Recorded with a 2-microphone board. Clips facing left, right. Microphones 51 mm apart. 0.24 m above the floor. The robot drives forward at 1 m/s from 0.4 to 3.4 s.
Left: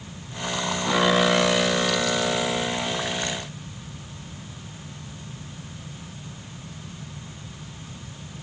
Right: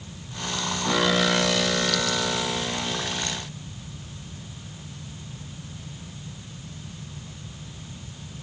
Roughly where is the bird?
I don't hear a bird.